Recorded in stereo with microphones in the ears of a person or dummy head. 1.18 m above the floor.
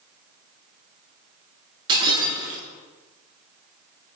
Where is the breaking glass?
30° right (ahead or behind), 8 m.